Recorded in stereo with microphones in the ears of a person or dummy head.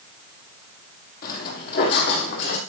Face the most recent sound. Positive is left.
turn(degrees=60)  # may be behind; listen again after turning